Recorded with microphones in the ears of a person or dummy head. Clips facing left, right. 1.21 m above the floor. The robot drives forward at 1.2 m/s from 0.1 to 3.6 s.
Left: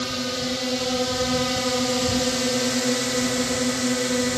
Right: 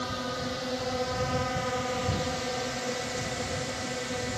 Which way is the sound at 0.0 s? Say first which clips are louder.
Left 6 dB; 35° left (ahead or behind).